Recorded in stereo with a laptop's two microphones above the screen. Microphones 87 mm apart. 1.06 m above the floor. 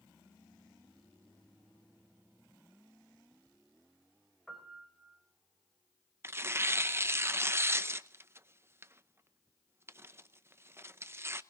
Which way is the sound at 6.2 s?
30° right (ahead or behind).